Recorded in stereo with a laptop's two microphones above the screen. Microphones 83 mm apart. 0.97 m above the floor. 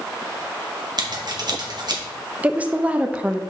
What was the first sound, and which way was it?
Scissors, 55° right (ahead or behind).